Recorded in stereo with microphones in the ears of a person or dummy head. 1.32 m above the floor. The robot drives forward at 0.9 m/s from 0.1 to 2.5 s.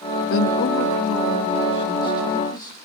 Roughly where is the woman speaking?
Left.